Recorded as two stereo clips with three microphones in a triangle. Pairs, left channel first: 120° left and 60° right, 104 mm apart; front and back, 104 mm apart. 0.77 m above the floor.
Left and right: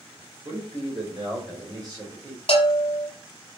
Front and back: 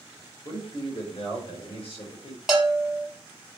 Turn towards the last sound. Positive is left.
turn(degrees=95)